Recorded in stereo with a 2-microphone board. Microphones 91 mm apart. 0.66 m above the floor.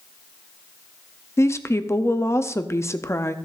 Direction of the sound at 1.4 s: 30° left (ahead or behind).